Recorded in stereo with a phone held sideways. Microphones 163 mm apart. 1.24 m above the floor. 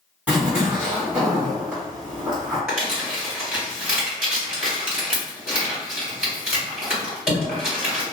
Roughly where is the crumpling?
Centre.